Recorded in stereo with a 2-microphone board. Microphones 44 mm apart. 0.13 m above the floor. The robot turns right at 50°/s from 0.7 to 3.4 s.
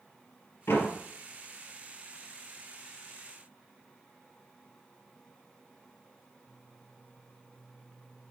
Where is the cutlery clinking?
I don't hear cutlery clinking.